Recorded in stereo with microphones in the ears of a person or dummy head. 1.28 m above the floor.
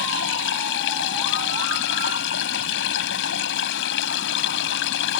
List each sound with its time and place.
0.0 s running water: 65° left (ahead or behind)